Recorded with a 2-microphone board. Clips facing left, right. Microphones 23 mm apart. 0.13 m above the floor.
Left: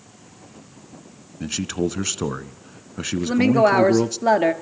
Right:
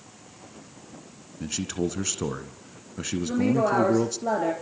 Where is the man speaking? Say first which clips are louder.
Left 4 dB; 25° left (ahead or behind), 1.1 m.